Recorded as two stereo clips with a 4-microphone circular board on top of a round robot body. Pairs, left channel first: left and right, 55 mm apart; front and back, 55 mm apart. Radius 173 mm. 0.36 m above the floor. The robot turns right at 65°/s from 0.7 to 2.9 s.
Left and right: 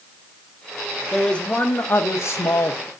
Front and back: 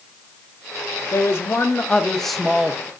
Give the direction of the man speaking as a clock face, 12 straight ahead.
12 o'clock.